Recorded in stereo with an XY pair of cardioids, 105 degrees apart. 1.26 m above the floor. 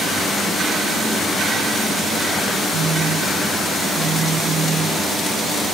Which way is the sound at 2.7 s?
65° right.